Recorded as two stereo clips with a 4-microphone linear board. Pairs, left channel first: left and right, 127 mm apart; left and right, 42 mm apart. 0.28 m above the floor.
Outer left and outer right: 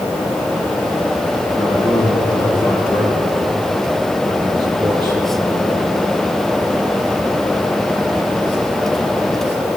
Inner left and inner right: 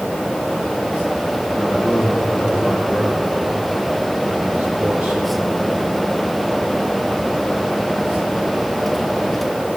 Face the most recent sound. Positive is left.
turn(degrees=-35)  # may be behind; listen again after turning